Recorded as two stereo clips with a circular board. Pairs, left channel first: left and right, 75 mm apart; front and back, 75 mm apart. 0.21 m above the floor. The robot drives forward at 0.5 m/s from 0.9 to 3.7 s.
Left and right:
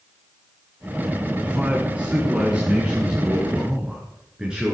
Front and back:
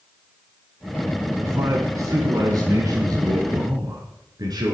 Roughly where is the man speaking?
Behind right.